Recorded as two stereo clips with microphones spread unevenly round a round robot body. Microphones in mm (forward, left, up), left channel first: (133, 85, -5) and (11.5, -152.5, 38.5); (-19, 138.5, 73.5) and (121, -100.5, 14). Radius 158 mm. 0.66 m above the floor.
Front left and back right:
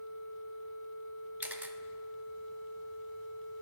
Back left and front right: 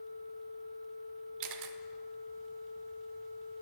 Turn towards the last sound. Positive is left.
turn(degrees=-35)